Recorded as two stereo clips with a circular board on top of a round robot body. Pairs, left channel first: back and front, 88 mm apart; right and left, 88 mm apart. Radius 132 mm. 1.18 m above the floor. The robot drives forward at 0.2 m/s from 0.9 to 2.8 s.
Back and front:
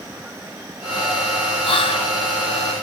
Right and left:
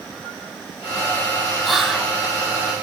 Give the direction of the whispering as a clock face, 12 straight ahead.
6 o'clock.